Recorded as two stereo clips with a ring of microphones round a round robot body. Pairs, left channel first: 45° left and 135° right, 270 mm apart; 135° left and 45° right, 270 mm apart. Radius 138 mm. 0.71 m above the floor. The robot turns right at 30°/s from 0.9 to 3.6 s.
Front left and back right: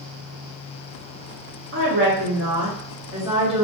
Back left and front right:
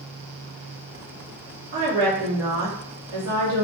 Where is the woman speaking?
100° right, 1.3 m; by 3.6 s 45° right, 1.3 m.